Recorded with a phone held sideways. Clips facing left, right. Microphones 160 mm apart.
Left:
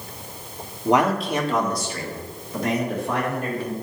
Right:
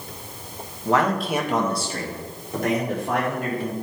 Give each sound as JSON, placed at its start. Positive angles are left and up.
{"t": 0.8, "sound": "a man speaking", "side_deg": 20, "distance_m": 1.0}